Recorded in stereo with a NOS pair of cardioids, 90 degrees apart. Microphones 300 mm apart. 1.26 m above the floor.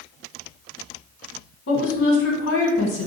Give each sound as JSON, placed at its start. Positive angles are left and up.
{"t": 1.7, "sound": "a woman speaking", "azimuth_deg": 45, "distance_m": 1.0}